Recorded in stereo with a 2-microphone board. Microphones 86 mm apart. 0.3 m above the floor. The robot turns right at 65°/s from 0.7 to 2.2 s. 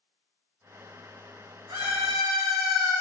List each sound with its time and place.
1.7 s a scream: 85° right, 4.5 m; by 2.9 s 55° right, 4.5 m